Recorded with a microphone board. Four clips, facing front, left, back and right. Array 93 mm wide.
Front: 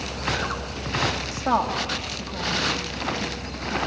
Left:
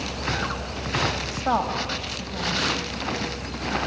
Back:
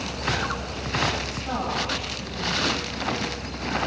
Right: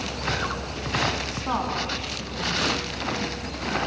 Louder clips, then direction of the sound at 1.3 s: Left 3 dB, front 5 dB; 50° left.